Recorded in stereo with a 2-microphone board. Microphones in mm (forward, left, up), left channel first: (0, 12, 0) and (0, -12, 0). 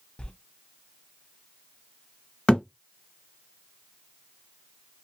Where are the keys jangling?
I don't hear keys jangling.